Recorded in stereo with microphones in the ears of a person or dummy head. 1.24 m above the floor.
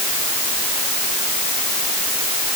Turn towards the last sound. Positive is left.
No sound to turn to.